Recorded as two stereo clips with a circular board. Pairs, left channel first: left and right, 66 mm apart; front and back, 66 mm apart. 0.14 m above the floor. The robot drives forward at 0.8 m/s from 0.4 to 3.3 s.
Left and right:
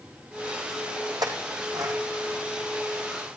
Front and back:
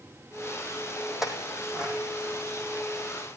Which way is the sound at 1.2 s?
95° right.